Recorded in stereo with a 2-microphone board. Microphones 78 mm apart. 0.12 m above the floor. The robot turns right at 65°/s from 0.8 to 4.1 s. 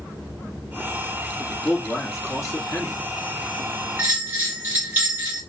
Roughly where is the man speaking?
Ahead left.